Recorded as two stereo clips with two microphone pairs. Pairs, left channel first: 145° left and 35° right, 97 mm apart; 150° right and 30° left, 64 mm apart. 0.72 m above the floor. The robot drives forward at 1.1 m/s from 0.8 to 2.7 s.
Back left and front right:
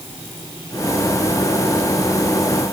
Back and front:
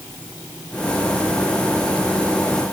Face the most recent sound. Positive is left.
No sound to turn to.